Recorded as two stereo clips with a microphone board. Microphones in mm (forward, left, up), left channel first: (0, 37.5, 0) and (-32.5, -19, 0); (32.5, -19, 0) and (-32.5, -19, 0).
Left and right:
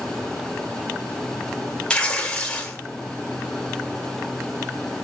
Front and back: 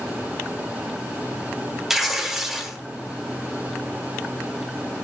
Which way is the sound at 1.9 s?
100° left.